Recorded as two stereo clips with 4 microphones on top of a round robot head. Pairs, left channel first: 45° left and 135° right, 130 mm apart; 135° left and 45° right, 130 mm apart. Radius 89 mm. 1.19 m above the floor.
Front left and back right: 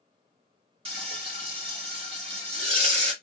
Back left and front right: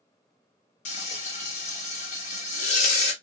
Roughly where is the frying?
Behind.